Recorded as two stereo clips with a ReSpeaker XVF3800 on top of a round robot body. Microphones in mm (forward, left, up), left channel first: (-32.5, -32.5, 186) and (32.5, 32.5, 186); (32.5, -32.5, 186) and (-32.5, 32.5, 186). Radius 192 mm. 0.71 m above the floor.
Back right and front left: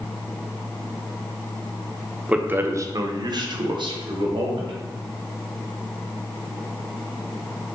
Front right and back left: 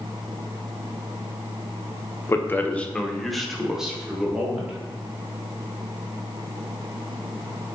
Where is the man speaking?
20° right, 0.7 m; by 4.7 s 60° left, 1.4 m.